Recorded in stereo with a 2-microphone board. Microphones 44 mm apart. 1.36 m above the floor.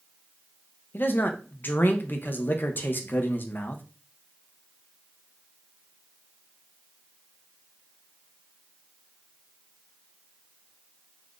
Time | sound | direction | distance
0.9 | a man speaking | 50° left (ahead or behind) | 0.5 m